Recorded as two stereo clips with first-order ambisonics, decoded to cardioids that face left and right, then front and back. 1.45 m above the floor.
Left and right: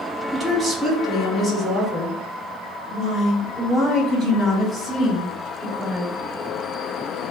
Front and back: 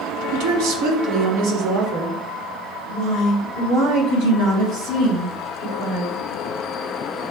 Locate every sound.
0.3 s a woman speaking: 170° right, 0.8 m; by 6.2 s 165° left, 4 m